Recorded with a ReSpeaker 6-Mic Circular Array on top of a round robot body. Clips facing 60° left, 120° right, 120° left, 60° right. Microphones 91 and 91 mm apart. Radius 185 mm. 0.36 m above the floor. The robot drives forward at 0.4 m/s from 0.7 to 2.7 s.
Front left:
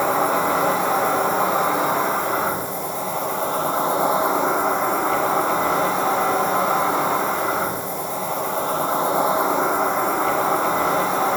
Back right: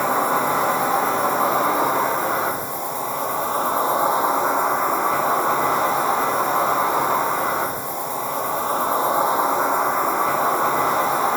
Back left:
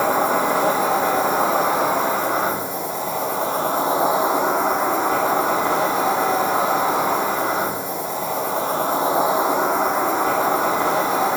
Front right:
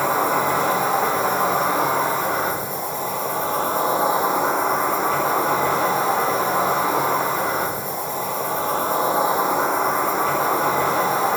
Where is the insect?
175° left, 1.9 m.